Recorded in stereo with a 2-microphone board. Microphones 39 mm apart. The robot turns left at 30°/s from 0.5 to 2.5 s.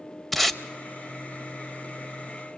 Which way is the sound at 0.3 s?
5° left (ahead or behind).